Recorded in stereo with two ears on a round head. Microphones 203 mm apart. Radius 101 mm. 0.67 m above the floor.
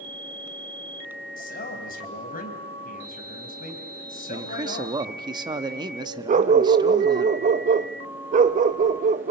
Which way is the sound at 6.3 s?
35° right (ahead or behind).